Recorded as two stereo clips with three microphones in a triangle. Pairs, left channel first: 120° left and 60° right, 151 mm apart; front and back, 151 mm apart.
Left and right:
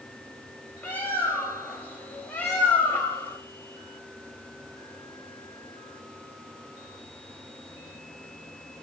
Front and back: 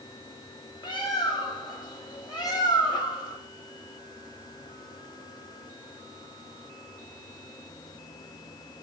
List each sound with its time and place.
0.8 s a bird: 45° left, 0.7 m